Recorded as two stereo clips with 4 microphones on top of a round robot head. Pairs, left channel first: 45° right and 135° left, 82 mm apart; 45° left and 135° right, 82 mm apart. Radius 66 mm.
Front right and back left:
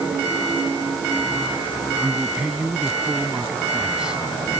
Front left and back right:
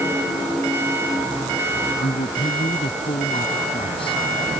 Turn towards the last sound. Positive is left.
turn(degrees=55)